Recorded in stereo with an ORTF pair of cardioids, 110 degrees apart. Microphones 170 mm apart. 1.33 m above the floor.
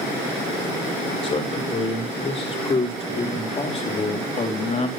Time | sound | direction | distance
1.2 | a man speaking | 35° left | 4.5 m